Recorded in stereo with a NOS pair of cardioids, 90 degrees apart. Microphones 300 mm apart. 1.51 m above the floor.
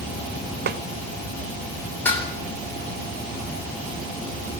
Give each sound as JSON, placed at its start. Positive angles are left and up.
{"t": 0.7, "sound": "a snare drum", "azimuth_deg": -35, "distance_m": 0.7}
{"t": 2.0, "sound": "dishes clattering", "azimuth_deg": 5, "distance_m": 3.0}